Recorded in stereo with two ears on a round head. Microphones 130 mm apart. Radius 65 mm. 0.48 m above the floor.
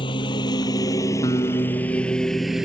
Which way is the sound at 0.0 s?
35° left (ahead or behind).